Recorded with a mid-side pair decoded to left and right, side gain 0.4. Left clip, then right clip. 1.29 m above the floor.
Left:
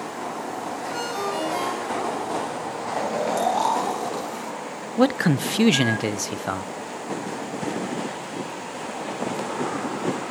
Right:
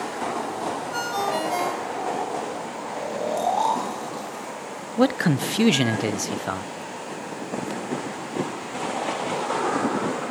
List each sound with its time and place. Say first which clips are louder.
0.9 s a ringtone: right 2 dB; 45° right, 4.5 m
2.9 s snoring: left 3 dB; 30° left, 7.5 m
5.0 s a man speaking: left 1 dB; straight ahead, 0.5 m